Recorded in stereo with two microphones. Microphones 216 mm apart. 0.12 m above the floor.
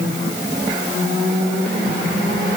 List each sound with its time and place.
Only background noise.